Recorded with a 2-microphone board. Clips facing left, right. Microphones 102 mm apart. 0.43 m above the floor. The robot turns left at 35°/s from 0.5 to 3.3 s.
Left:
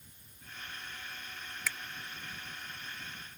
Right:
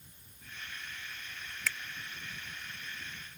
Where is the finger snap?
10° left (ahead or behind); by 1.8 s 5° left (ahead or behind).